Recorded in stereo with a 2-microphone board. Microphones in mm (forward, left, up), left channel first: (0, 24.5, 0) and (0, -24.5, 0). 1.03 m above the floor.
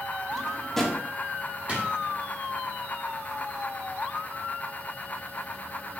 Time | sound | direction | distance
0.3 | a drawer | 5° left (ahead or behind) | 0.6 m
1.7 | a drawer | 30° right (ahead or behind) | 1.0 m